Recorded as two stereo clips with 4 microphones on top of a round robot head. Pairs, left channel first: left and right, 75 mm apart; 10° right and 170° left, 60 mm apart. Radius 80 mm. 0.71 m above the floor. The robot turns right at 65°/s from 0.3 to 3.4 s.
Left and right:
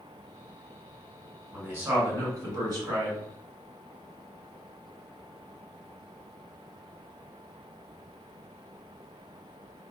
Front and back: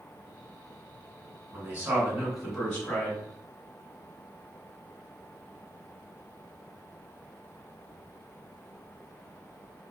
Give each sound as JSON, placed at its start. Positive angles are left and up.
{"t": 1.5, "sound": "a man speaking", "azimuth_deg": -155, "distance_m": 1.6}